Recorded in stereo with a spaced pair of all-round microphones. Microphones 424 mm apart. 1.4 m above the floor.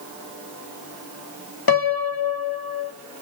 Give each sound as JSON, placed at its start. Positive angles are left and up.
{"t": 1.7, "sound": "a piano", "side_deg": 55, "distance_m": 0.9}